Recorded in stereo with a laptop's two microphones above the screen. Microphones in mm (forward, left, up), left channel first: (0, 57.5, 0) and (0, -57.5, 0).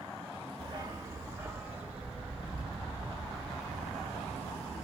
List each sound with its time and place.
0.6 s a dog barking: 40° right (ahead or behind), 0.9 m; by 4.9 s 5° left (ahead or behind), 3.5 m